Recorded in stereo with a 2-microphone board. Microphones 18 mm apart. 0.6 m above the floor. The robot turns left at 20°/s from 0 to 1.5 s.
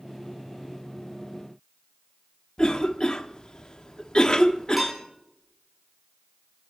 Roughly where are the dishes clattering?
Centre.